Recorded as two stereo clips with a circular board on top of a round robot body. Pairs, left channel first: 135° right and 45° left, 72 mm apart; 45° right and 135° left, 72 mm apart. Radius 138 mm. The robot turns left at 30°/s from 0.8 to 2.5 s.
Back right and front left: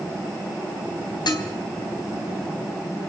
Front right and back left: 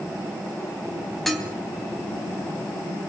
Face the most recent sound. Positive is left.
turn(degrees=-170)